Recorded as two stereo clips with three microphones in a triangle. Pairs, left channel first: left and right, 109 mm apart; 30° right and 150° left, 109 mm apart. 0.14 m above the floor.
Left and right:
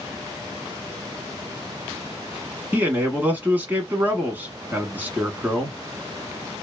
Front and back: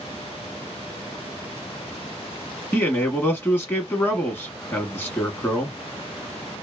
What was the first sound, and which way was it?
A man speaking, 50° right.